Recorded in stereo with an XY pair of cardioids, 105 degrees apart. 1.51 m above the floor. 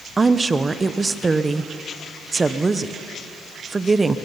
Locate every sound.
0.2 s a woman speaking: 25° right, 0.9 m